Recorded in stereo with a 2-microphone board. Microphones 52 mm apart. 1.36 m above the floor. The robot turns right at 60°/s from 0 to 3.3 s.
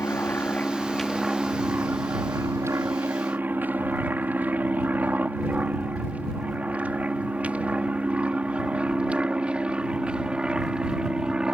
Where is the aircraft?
60° left (ahead or behind); by 11.6 s 15° right (ahead or behind).